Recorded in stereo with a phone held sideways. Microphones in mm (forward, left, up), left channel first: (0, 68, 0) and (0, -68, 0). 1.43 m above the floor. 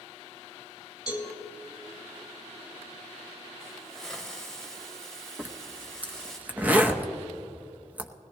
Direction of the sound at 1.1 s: 25° left (ahead or behind).